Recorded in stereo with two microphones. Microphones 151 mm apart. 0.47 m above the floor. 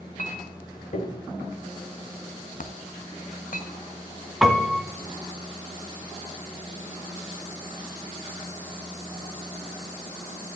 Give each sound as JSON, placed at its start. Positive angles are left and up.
{"t": 0.2, "sound": "a clink", "side_deg": 60, "distance_m": 1.4}
{"t": 2.6, "sound": "a dropped coin", "side_deg": 65, "distance_m": 0.8}
{"t": 4.4, "sound": "a piano", "side_deg": 0, "distance_m": 1.2}